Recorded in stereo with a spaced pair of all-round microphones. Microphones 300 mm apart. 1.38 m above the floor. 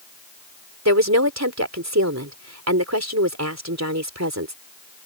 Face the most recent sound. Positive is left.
turn(degrees=-65)  # may be behind; listen again after turning